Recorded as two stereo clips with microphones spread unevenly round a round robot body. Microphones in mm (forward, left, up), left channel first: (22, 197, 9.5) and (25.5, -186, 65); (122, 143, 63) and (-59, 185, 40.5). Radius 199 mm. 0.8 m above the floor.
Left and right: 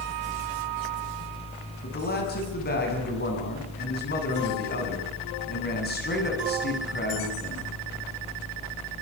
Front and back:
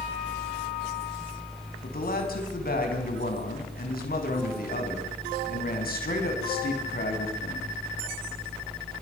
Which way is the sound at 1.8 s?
25° left.